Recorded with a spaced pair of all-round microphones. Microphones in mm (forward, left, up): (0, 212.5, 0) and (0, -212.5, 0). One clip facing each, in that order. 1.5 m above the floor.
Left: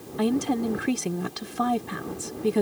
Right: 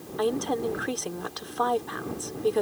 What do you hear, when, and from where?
0.2 s a woman speaking: 40° left (ahead or behind)